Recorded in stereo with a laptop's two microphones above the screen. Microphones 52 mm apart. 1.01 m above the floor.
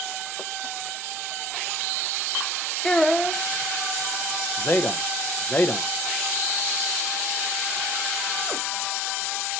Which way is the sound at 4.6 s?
35° left (ahead or behind).